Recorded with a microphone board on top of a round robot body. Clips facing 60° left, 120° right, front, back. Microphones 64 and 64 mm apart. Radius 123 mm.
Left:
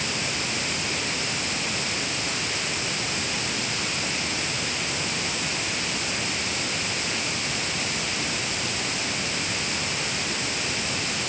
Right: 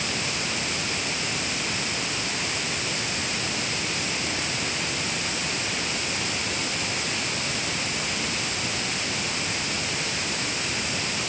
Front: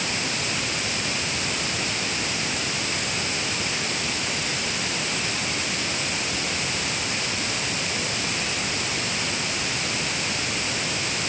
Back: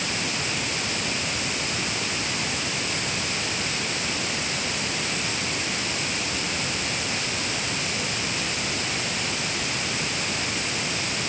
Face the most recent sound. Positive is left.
No sound to turn to.